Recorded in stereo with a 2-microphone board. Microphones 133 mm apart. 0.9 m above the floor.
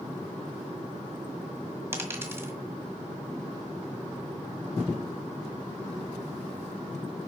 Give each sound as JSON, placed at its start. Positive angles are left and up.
{"t": 1.9, "sound": "a dropped coin", "side_deg": -20, "distance_m": 1.6}